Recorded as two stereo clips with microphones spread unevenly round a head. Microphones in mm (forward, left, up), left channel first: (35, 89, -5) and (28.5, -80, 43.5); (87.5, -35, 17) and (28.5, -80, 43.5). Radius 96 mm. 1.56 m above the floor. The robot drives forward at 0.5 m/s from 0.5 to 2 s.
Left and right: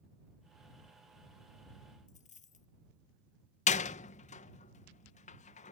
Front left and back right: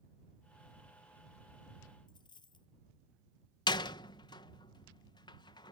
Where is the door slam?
40° left.